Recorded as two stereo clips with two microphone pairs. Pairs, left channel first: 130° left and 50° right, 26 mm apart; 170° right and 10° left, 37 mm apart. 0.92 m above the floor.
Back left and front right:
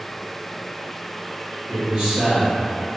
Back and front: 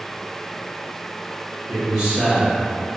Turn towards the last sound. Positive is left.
turn(degrees=-5)